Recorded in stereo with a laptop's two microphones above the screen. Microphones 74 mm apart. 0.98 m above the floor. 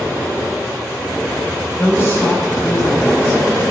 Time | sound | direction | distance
1.8 | a woman speaking | 35° left (ahead or behind) | 4.5 m